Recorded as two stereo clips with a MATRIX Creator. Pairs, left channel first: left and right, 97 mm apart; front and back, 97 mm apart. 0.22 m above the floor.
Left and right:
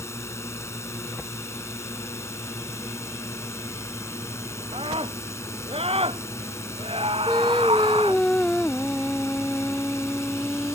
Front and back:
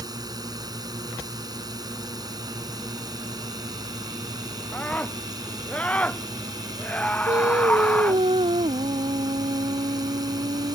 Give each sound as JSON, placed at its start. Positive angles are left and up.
{"t": 0.0, "sound": "a drone", "azimuth_deg": 145}
{"t": 4.7, "sound": "a scream", "azimuth_deg": -75}
{"t": 7.3, "sound": "singing", "azimuth_deg": 175}